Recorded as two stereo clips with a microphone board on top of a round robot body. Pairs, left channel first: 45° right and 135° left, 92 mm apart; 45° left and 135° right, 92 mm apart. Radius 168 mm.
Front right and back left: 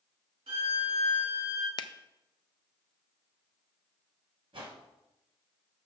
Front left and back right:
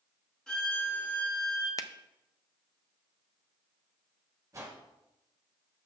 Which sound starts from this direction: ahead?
A finger snap, at 1.8 s.